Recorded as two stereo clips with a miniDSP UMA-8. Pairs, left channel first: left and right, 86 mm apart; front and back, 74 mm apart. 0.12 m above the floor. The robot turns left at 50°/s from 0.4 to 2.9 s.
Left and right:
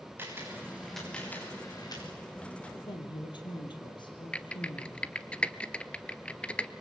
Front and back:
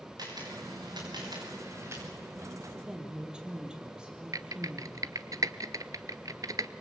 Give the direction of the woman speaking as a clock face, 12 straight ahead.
8 o'clock.